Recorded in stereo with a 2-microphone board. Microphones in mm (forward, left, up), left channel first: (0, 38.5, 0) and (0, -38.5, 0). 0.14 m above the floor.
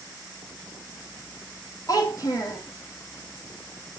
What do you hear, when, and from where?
1.9 s a child speaking: 45° left (ahead or behind), 3.5 m